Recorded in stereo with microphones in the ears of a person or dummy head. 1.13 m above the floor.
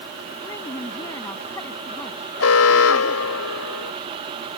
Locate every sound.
0.4 s a woman speaking: 10° left (ahead or behind)
2.4 s an alarm: 75° left (ahead or behind)